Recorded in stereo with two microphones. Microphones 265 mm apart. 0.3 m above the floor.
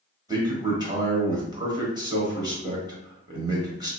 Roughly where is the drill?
I don't hear a drill.